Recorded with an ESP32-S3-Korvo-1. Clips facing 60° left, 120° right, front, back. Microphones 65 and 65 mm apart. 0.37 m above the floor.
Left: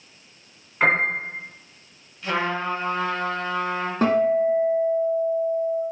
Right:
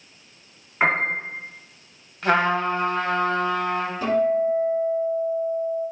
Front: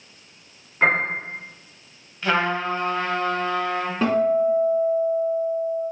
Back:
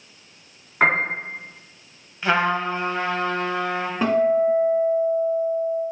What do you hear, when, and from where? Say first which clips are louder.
0.8 s a piano: left 1 dB, back 1 dB; 165° left, 2.5 m
2.2 s a trumpet: right 5 dB, back 1 dB; 105° right, 1.4 m
4.0 s a guitar: left 2 dB, back 1 dB; 95° left, 1.6 m